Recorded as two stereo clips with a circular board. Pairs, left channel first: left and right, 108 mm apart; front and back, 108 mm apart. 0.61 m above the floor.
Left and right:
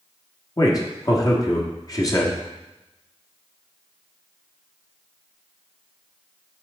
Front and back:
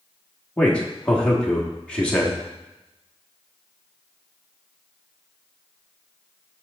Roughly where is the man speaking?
Left.